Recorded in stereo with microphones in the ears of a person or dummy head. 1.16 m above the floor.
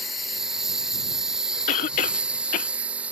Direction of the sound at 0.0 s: Centre (ahead or behind).